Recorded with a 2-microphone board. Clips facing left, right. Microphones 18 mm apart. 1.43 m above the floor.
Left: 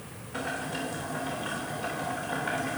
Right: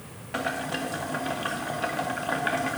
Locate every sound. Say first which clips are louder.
0.3 s boiling: right 4 dB; 75° right (ahead or behind), 1.9 m